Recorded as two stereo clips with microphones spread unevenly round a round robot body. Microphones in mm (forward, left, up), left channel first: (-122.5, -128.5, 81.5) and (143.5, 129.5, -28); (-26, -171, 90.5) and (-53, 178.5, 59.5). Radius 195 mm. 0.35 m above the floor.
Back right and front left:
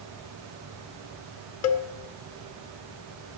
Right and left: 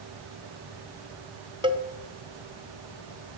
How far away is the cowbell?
About 1.4 m.